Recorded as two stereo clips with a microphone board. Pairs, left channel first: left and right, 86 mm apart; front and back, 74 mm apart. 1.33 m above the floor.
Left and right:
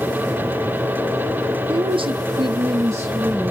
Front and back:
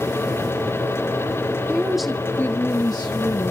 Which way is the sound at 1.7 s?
105° right.